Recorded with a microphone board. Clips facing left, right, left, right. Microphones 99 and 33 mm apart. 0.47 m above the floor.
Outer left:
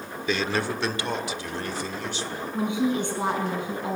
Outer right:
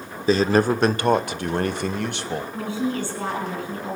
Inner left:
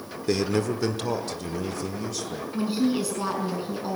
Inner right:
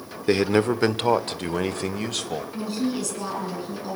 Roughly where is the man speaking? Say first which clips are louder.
Outer right 9 dB, inner right 5 dB; right.